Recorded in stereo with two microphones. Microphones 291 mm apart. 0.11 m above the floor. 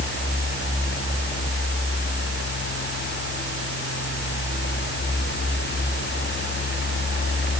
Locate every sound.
Only background noise.